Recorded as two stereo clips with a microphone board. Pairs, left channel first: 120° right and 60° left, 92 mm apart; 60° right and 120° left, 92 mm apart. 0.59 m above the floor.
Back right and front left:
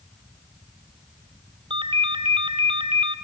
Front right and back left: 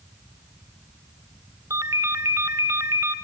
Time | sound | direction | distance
1.7 | a ringtone | 65° left | 1.2 m